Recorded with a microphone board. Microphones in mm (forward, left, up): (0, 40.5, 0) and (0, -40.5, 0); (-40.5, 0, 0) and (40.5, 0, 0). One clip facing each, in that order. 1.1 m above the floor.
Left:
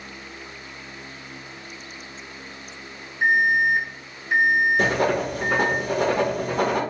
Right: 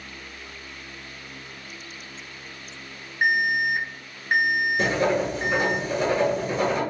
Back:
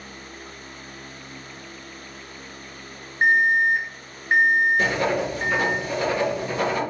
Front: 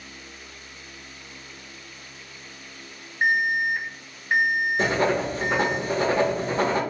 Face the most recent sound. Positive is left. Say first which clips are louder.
# left 1 dB, even
turn(degrees=60)